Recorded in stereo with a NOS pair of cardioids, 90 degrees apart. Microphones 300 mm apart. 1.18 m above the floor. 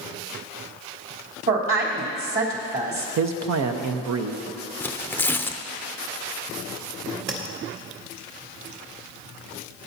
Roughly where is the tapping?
Ahead right.